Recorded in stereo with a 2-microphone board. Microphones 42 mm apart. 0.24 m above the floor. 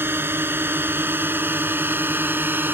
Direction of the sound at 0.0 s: 65° right (ahead or behind).